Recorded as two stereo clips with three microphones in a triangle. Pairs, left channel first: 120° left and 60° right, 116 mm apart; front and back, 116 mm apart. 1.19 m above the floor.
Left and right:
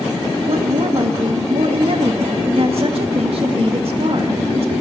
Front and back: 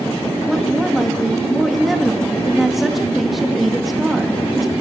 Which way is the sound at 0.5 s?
90° right.